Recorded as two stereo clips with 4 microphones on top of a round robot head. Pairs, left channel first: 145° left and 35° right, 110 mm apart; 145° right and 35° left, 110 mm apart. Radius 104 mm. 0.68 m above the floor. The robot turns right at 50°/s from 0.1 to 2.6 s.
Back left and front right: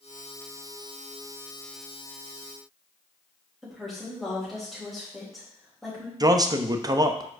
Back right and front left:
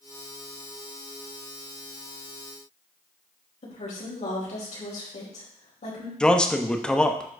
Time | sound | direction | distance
3.6 | a woman speaking | 125° right | 4.5 m
6.2 | a man speaking | 65° right | 1.0 m